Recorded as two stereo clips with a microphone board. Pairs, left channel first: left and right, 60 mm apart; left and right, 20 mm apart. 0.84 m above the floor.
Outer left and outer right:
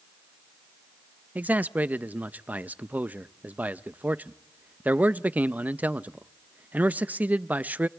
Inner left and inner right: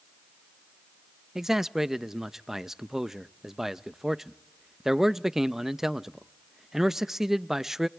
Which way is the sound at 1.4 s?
25° right (ahead or behind).